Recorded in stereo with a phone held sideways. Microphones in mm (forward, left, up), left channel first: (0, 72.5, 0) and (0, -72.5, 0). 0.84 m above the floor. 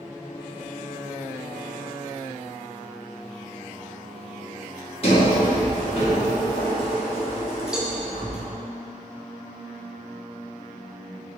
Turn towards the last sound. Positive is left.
turn(degrees=-5)  # may be behind; listen again after turning